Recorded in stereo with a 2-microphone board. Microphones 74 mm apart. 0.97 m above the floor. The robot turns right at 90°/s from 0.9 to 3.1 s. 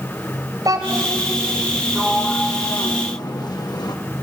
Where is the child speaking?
115° right, 2.5 m; by 1.2 s 85° right, 2.5 m.